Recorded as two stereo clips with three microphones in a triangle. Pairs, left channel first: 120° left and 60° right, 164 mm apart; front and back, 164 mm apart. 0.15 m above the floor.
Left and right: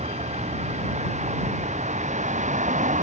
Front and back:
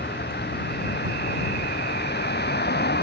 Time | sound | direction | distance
0.0 | a vehicle | 10° right | ?